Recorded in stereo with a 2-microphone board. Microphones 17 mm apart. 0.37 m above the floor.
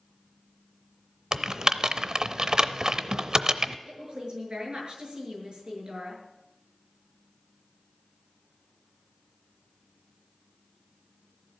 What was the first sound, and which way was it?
Typing on a keyboard, 45° right (ahead or behind).